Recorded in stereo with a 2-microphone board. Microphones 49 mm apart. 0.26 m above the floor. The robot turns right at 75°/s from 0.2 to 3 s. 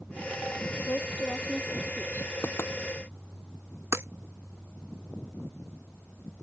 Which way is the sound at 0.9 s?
45° left (ahead or behind).